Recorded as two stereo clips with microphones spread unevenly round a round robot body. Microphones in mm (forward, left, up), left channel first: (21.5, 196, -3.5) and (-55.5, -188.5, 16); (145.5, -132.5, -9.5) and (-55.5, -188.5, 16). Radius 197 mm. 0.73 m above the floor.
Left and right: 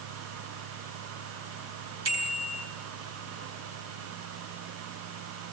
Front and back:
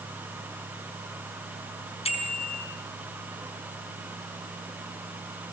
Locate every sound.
2.0 s a bicycle bell: 45° right, 7 m